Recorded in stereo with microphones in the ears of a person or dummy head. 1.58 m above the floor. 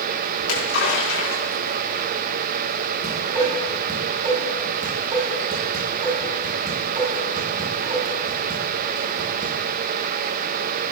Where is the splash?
85° left, 5.5 m.